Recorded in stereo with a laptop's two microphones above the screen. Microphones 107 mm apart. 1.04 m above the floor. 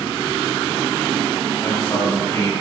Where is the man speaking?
35° left (ahead or behind), 2.5 m.